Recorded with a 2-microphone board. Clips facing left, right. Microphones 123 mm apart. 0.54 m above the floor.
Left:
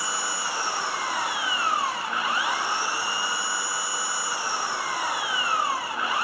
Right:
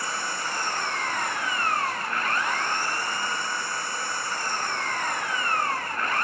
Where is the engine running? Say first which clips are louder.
Left 1 dB; 10° left (ahead or behind).